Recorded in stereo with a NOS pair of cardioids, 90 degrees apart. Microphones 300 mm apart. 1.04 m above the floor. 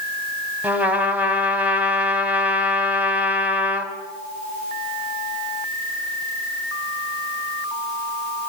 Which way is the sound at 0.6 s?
5° right.